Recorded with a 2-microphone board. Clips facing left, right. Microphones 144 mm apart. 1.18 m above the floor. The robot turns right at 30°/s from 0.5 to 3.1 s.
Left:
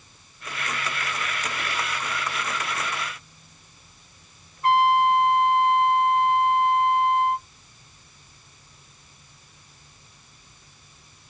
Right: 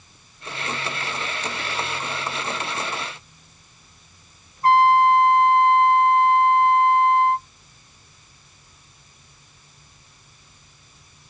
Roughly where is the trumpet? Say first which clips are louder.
Right 4 dB; right.